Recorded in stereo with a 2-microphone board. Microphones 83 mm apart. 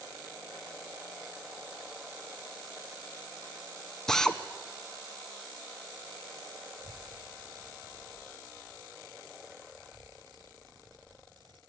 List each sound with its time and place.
4.1 s a drill: 5° left (ahead or behind), 1.1 m
6.8 s a child speaking: 60° right (ahead or behind), 3 m